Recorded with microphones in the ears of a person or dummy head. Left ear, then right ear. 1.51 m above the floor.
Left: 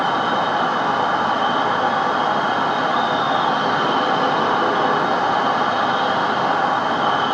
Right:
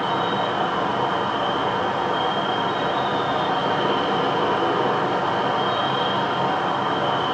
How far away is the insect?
About 3 m.